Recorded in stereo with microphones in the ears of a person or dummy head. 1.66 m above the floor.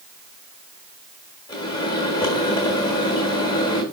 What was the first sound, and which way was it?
A microwave, 25° left (ahead or behind).